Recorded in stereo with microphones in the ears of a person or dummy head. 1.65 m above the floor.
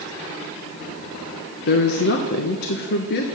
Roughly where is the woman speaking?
Left.